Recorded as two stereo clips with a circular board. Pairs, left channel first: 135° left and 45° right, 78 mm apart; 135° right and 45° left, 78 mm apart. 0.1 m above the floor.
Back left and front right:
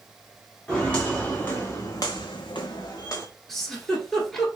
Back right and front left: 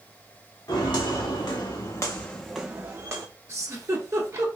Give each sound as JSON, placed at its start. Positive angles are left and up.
{"t": 0.7, "sound": "footsteps", "azimuth_deg": -150, "distance_m": 2.0}
{"t": 3.5, "sound": "a giggle", "azimuth_deg": 55, "distance_m": 1.2}